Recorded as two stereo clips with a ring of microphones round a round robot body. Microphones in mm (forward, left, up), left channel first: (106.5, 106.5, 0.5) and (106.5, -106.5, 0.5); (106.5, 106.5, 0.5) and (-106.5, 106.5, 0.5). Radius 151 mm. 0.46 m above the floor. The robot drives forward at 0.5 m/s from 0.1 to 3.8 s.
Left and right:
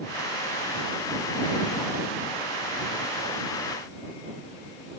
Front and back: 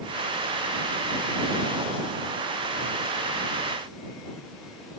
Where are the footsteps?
No footsteps in this recording.